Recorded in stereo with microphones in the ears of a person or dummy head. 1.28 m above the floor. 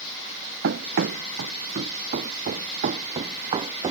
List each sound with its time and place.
0.6 s running footsteps: 60° right (ahead or behind); by 3.9 s 25° right (ahead or behind)